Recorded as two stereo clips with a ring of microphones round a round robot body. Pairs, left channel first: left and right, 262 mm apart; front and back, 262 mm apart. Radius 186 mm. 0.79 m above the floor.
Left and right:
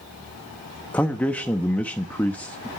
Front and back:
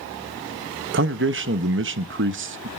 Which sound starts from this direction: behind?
A man speaking, at 0.9 s.